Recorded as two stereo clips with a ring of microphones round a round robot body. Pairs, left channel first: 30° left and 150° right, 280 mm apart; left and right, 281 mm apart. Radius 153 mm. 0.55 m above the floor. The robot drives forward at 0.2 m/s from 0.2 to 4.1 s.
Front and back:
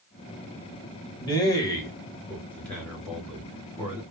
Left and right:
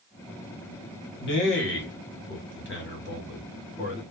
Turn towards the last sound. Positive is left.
turn(degrees=125)